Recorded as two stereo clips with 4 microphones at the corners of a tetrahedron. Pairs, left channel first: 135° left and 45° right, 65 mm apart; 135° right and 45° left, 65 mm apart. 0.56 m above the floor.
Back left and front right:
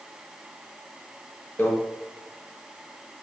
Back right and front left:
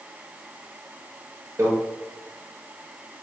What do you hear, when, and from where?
1.6 s a microwave: 75° left, 1.3 m